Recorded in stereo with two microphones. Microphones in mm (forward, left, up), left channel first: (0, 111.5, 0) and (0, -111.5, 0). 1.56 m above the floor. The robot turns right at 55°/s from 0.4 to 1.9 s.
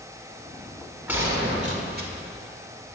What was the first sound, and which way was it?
A gunshot, 170° right.